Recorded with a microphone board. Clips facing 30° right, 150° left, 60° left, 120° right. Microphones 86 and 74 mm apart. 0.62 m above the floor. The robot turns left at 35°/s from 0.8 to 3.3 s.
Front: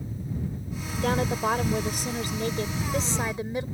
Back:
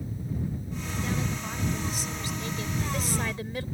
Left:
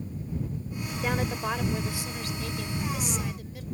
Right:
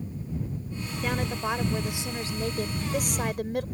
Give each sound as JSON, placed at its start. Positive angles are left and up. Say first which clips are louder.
{"t": 1.0, "sound": "a woman speaking", "louder": "front 9 dB, even", "azimuth_deg": -20}